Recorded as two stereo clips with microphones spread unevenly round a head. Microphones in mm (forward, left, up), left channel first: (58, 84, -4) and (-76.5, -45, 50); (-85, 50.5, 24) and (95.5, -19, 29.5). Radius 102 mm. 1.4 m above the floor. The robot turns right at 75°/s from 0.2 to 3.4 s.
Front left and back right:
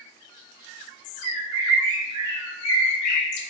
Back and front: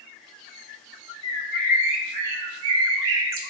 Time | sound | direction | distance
1.2 | a bird | 135° right | 0.6 m